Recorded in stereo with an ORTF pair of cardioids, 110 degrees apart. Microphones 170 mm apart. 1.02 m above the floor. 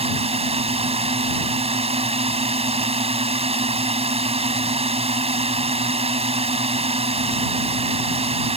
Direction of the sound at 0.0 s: 35° right.